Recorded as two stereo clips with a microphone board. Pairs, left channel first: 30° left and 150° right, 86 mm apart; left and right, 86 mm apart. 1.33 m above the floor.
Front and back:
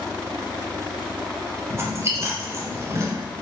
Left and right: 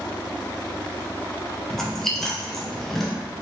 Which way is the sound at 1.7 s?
175° left.